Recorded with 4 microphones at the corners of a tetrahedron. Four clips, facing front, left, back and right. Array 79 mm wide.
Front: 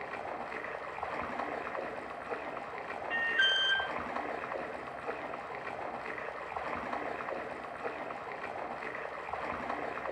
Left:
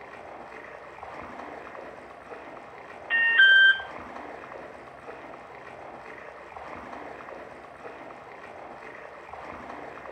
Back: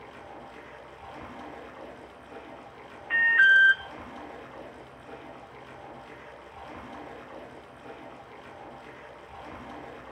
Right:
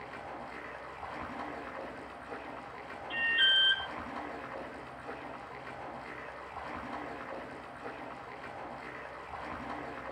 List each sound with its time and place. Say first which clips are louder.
0.0 s running water: left 1 dB, front 5 dB; 15° left, 4 m
3.1 s an alarm: left 11 dB, back 11 dB; 120° left, 1.5 m